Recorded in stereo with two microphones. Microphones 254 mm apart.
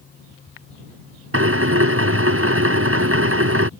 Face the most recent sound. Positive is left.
turn(degrees=-60)  # may be behind; listen again after turning